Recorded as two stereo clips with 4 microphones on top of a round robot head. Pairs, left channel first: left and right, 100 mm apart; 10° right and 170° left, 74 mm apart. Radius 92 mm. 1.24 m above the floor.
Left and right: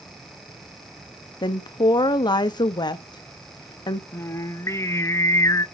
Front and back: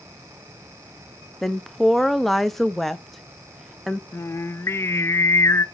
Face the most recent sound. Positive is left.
turn(degrees=35)